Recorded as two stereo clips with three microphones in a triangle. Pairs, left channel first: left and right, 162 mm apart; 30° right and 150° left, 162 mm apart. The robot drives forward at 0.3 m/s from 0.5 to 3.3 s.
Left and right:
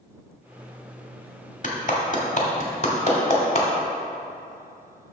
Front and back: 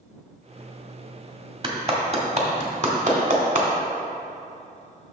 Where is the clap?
105° left, 1.1 m; by 3.7 s 130° left, 1.3 m.